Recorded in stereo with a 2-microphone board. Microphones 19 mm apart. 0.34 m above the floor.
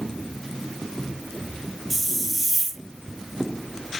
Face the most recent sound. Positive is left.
turn(degrees=-20)  # may be behind; listen again after turning